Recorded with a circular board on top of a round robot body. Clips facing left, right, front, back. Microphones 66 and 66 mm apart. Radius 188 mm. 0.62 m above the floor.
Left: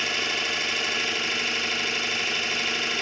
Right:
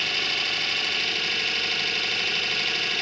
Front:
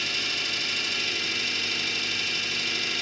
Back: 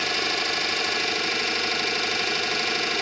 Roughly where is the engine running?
Behind.